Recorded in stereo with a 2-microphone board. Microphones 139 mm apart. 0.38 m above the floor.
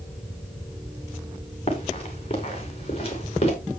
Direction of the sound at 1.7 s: 40° left (ahead or behind).